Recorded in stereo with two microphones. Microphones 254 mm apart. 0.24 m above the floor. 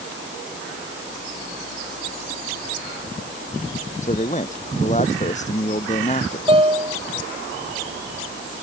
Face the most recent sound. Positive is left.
turn(degrees=-20)  # may be behind; listen again after turning